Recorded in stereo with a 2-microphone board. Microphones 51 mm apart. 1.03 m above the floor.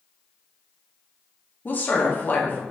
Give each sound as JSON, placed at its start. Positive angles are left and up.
{"t": 1.6, "sound": "a woman speaking", "side_deg": 35, "distance_m": 0.7}